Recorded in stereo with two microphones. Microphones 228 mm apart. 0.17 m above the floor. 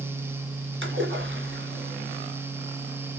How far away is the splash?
About 3 m.